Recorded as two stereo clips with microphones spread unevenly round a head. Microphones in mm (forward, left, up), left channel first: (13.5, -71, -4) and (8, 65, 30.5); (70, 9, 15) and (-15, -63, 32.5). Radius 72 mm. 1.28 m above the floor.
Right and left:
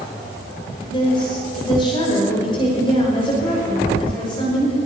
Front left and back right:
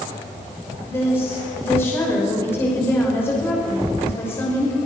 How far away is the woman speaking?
About 5.5 m.